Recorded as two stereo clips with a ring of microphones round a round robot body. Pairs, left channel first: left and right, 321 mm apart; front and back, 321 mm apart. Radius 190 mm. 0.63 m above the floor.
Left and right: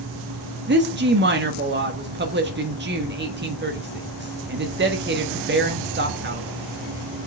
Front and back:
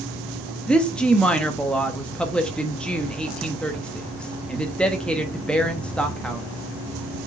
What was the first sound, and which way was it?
A woman speaking, 85° right.